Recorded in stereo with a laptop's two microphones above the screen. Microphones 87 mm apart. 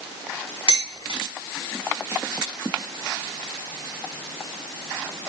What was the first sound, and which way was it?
Dishes clattering, 75° left (ahead or behind).